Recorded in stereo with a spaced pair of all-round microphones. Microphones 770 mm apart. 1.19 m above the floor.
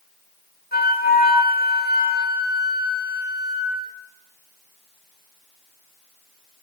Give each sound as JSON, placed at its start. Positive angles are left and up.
{"t": 0.7, "sound": "a flute", "side_deg": 10, "distance_m": 6.5}